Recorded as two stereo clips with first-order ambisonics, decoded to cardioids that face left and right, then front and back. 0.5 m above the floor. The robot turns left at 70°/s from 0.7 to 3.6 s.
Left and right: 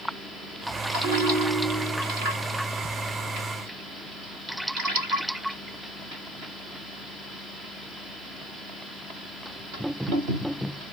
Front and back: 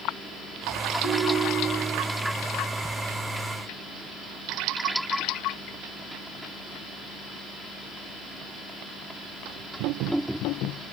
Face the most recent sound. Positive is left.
turn(degrees=145)